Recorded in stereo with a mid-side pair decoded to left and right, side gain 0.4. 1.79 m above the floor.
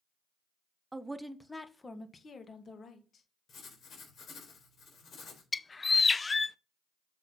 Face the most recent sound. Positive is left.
turn(degrees=30)